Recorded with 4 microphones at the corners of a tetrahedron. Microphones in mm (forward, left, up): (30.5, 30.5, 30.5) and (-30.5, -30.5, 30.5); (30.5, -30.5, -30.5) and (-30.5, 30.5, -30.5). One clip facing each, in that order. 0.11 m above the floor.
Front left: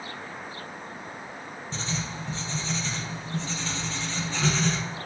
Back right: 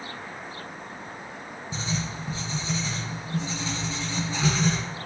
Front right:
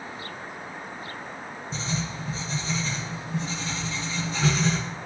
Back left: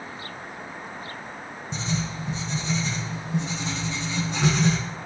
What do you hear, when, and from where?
1.7 s writing: 150° left, 1.6 m